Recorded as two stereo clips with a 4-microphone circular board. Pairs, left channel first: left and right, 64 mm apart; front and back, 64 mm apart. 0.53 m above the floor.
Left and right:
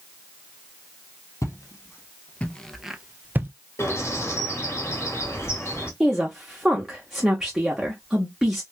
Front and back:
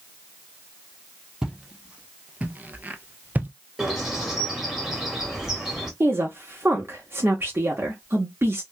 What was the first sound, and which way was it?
Footsteps, 100° left.